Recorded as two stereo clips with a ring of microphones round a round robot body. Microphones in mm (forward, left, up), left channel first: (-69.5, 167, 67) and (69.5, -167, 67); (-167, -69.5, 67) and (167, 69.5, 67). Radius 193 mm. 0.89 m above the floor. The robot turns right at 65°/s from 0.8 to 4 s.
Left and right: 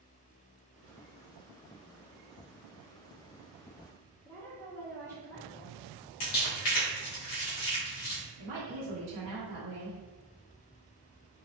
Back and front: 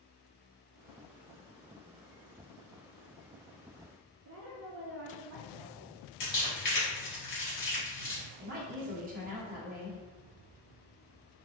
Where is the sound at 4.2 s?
35° left, 0.6 m.